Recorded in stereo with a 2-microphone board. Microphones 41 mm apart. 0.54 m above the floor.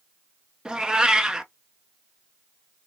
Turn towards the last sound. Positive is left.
turn(degrees=-20)  # may be behind; listen again after turning